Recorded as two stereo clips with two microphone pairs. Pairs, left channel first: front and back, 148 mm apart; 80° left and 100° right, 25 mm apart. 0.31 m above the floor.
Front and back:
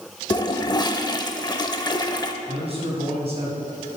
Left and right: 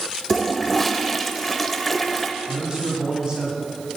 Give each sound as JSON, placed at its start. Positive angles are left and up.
{"t": 0.3, "sound": "a toilet flushing", "azimuth_deg": 5, "distance_m": 0.6}
{"t": 2.5, "sound": "a man speaking", "azimuth_deg": -145, "distance_m": 2.5}